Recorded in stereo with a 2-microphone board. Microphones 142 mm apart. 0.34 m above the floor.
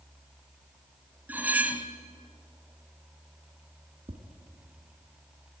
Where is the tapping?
45° right (ahead or behind), 2 m.